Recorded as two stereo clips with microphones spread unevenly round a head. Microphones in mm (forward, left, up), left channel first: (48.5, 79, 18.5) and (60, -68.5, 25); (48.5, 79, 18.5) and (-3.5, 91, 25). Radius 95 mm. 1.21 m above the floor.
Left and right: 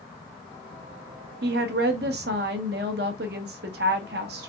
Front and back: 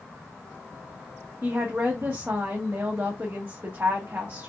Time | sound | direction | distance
1.4 | a woman speaking | 115° right | 0.8 m